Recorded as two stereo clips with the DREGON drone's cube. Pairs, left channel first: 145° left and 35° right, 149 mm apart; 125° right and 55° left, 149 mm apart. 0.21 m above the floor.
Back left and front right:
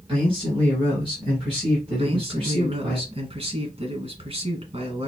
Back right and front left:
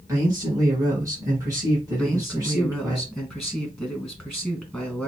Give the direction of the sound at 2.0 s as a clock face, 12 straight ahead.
1 o'clock.